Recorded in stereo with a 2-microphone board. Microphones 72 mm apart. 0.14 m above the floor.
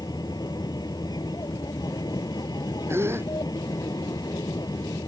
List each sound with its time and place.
0.0 s an aircraft: 65° left (ahead or behind)
2.9 s a gasp: 35° right (ahead or behind)